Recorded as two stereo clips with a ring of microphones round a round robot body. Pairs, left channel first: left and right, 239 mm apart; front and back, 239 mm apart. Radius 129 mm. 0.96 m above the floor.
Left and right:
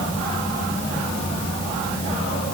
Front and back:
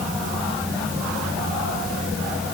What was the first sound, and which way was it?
Only background noise.